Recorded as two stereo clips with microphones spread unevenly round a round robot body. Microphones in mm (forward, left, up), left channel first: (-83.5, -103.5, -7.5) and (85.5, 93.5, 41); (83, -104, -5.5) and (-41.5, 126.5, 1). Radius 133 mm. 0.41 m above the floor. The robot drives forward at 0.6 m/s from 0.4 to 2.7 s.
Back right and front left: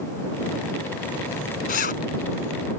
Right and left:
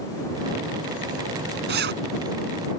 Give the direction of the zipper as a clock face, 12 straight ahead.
6 o'clock.